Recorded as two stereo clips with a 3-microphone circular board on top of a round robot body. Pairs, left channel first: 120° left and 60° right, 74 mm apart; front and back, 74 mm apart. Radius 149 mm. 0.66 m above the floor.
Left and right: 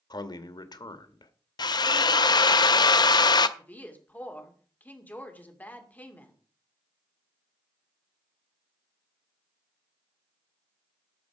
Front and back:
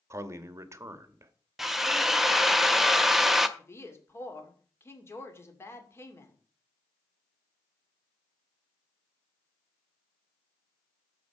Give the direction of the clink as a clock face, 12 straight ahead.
No clink in this recording.